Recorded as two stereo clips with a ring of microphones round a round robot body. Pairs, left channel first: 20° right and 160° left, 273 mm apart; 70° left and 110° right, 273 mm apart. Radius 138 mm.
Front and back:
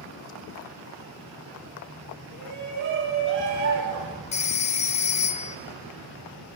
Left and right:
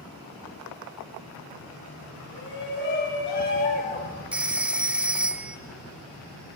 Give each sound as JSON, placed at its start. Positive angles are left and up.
{"t": 2.3, "sound": "a shout", "azimuth_deg": 110, "distance_m": 4.0}
{"t": 4.3, "sound": "a phone ringing", "azimuth_deg": -30, "distance_m": 0.6}